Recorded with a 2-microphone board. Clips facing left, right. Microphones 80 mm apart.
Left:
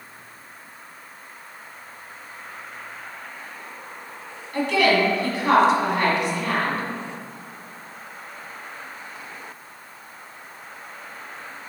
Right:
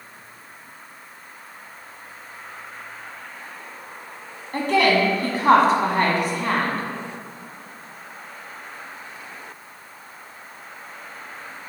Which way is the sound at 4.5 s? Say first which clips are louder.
Right 1 dB; 45° right (ahead or behind).